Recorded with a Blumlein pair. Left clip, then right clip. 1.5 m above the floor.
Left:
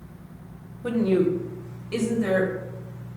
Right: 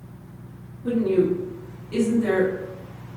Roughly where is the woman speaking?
Ahead left.